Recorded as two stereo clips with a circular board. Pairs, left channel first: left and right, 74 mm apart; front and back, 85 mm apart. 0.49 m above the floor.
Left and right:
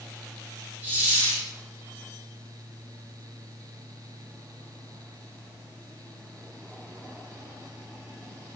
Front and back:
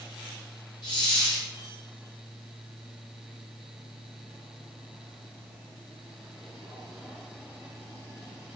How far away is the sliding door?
I don't hear a sliding door.